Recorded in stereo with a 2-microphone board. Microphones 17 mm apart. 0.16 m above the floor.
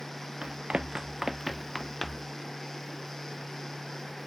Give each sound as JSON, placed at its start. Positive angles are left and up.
{"t": 0.4, "sound": "running footsteps", "side_deg": -85}